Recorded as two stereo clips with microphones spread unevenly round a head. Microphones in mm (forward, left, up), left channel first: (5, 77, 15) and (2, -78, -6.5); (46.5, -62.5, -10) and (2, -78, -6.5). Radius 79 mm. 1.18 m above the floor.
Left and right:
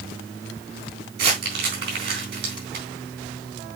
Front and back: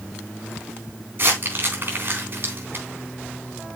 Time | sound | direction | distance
1.2 | crumpling | 120° right | 3.5 m